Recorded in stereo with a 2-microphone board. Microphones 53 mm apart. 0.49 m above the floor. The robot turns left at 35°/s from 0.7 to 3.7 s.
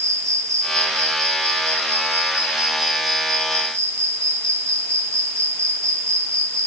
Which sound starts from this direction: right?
An insect, at 0.0 s.